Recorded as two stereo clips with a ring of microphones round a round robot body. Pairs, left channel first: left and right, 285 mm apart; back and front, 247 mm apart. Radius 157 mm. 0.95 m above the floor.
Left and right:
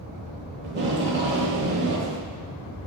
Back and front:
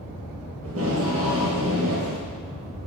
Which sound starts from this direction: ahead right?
Tape being pulled, at 0.6 s.